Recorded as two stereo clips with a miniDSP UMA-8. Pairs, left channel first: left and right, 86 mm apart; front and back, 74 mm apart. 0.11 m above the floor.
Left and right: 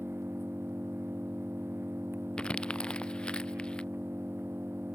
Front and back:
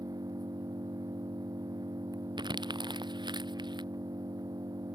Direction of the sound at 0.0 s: 150° right.